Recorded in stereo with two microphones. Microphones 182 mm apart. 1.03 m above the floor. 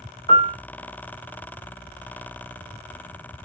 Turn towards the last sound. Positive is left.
turn(degrees=25)  # may be behind; listen again after turning